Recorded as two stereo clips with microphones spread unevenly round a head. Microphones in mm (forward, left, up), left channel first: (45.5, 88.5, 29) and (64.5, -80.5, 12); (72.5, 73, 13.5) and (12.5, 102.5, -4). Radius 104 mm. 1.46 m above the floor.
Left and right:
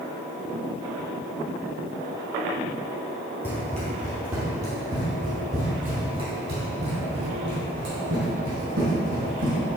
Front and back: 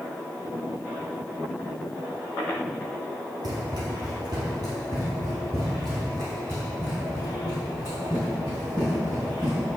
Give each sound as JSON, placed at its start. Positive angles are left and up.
{"t": 3.4, "sound": "running footsteps", "azimuth_deg": 170, "distance_m": 2.0}